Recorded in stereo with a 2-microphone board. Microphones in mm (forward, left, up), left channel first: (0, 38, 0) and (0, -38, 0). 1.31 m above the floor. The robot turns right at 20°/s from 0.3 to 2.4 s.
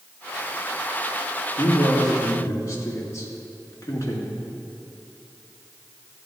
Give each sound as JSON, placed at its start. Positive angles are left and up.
{"t": 1.6, "sound": "a man speaking", "side_deg": 55, "distance_m": 2.5}